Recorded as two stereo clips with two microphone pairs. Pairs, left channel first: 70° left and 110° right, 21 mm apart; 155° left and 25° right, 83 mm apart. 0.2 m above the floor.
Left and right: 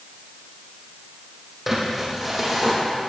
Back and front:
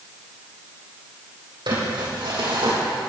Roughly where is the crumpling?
Ahead right.